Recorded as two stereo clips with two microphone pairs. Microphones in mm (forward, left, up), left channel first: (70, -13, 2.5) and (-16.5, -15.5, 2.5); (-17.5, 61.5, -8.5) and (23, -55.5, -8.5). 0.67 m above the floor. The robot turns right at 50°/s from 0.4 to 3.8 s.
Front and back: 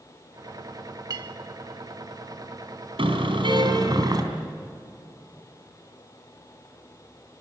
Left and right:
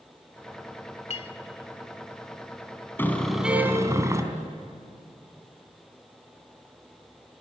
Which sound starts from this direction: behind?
A car horn, at 3.0 s.